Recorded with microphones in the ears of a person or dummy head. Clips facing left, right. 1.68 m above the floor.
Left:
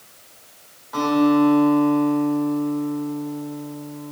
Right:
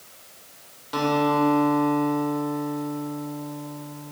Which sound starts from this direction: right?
A guitar, at 0.9 s.